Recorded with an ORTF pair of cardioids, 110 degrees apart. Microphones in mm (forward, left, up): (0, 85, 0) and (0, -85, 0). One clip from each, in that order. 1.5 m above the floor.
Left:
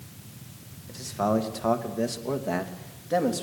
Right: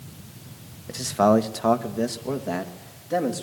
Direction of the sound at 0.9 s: 55° right.